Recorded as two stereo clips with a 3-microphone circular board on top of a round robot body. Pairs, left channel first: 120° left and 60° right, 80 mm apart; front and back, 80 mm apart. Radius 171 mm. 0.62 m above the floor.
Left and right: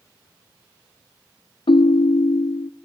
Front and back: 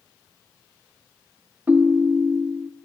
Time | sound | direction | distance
1.7 | a ringtone | 110° left | 0.5 m